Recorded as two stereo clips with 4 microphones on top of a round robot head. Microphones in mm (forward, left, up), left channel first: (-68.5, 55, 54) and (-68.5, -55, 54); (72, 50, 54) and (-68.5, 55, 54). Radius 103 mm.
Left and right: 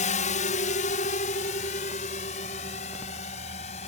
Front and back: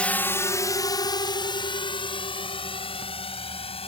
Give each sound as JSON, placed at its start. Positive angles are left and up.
{"t": 0.0, "sound": "a drone", "azimuth_deg": 80}